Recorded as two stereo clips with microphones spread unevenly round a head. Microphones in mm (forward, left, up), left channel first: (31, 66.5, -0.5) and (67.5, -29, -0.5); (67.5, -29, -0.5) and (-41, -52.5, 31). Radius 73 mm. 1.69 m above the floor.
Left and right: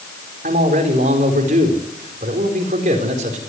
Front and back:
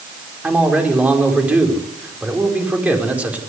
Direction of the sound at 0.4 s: 90° right.